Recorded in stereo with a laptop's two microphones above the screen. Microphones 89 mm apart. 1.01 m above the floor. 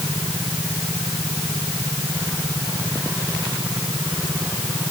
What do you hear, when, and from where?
Only background noise.